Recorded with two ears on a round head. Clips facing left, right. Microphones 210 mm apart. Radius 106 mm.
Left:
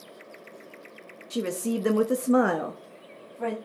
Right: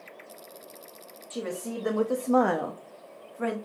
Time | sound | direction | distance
1.3 | a woman speaking | 40° left (ahead or behind) | 1.1 m